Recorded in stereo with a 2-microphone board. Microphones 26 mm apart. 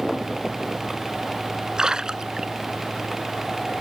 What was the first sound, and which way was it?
A splash, 25° right (ahead or behind).